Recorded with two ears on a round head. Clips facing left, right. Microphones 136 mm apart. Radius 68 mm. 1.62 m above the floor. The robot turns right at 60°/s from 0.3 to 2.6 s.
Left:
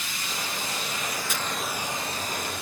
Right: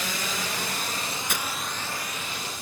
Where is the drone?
65° right (ahead or behind); by 2.6 s 60° left (ahead or behind).